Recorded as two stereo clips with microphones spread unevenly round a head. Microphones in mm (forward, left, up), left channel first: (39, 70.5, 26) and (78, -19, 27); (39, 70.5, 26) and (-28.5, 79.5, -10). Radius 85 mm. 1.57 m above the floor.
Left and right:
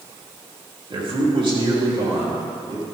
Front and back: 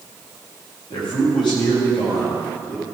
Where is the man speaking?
40° right, 4 m.